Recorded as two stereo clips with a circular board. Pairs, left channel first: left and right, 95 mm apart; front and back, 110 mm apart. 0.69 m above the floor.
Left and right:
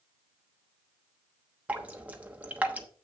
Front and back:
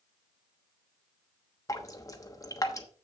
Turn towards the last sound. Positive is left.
turn(degrees=-25)